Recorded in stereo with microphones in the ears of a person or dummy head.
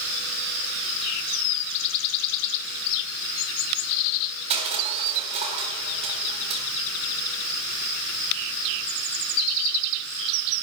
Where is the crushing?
35° right (ahead or behind), 4 m.